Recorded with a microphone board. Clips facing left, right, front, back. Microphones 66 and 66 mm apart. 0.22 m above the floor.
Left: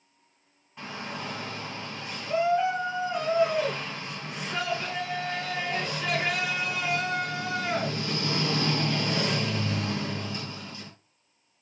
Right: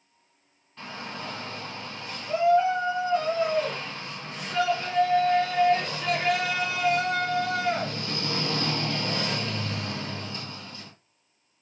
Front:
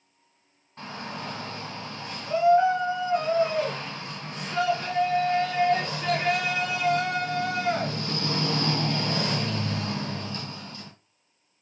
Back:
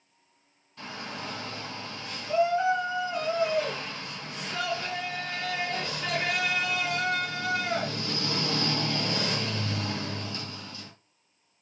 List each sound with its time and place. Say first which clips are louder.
0.8 s a shout: left 1 dB, front 2 dB; 20° left, 1.9 m